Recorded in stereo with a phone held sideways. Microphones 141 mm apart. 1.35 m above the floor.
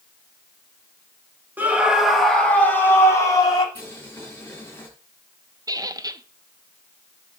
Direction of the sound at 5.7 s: 25° right (ahead or behind).